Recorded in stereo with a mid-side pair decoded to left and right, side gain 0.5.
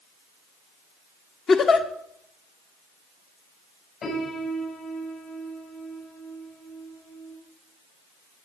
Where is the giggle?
45° left, 1.6 m.